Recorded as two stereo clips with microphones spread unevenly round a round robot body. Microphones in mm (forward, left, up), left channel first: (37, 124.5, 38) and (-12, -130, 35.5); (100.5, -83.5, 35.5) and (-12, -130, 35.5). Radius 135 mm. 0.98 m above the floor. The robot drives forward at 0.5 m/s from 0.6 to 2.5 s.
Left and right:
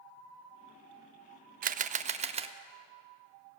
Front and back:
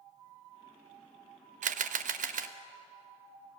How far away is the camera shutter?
About 0.5 m.